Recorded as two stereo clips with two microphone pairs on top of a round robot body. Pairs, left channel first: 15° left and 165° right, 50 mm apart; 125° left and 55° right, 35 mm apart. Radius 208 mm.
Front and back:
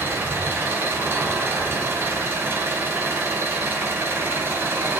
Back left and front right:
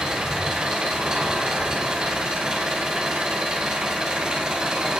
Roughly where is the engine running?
Behind right.